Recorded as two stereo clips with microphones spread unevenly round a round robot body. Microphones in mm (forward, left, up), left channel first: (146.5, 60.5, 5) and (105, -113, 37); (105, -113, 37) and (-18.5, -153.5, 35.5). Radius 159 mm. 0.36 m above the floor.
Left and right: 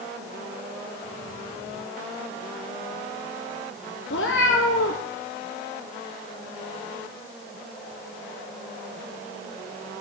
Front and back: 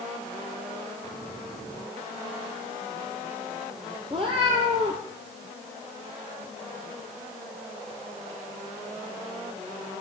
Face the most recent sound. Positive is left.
turn(degrees=125)